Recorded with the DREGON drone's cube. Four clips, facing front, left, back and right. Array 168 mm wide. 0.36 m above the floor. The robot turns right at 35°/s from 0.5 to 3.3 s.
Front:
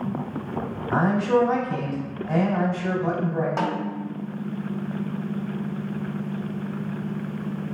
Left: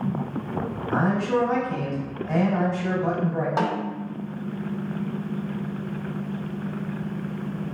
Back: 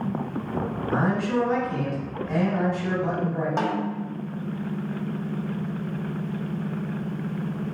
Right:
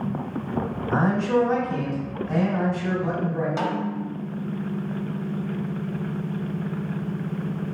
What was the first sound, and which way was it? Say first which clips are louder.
A man speaking: right 1 dB, front 4 dB; 25° right.